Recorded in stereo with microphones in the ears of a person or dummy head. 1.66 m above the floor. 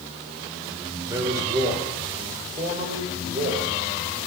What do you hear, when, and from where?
1.1 s a man speaking: 15° right (ahead or behind), 4.5 m; by 4.3 s 45° right (ahead or behind), 6 m